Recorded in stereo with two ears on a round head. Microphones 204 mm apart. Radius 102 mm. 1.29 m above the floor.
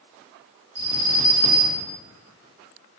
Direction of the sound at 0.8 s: 75° right (ahead or behind).